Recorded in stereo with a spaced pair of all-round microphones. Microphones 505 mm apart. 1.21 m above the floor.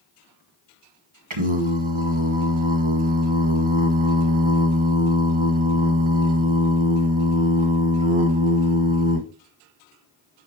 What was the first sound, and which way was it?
Singing, 75° right (ahead or behind).